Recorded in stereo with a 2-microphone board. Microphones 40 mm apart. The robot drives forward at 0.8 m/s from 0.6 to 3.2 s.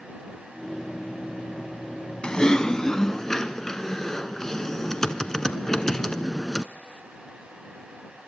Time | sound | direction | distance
2.2 | typing on a keyboard | 20° left (ahead or behind) | 0.6 m